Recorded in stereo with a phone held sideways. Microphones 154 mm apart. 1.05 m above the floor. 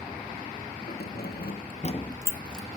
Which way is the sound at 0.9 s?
85° left.